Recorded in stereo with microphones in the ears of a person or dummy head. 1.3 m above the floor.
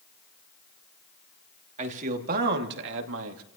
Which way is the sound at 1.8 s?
40° right (ahead or behind).